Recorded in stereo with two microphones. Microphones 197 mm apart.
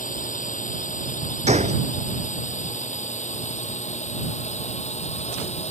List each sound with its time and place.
0.0 s a drone: 40° left (ahead or behind); by 5.7 s 35° left (ahead or behind)
1.5 s a gunshot: 35° right (ahead or behind)